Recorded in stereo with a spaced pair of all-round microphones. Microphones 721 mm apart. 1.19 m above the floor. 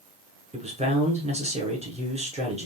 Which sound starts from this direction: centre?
A man speaking, at 0.5 s.